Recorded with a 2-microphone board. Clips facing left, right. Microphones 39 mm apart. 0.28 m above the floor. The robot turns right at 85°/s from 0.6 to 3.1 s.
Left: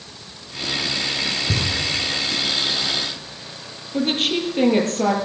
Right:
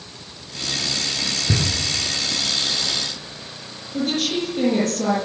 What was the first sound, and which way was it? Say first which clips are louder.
Knocking: even; 30° right (ahead or behind).